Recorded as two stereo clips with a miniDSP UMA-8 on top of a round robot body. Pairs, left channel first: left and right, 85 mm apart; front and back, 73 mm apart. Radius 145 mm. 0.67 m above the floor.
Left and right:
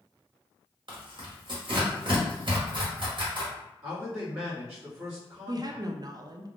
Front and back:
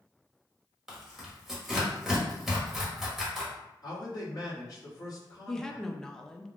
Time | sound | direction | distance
0.9 | tearing paper | 95° right | 1.5 m
3.8 | a man speaking | 30° right | 1.9 m
5.5 | a woman speaking | 80° right | 0.6 m